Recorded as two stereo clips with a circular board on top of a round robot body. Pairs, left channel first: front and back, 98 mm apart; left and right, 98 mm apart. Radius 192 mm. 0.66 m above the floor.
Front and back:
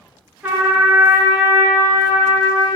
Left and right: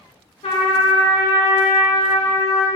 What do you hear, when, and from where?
0.4 s a trumpet: 105° left, 0.8 m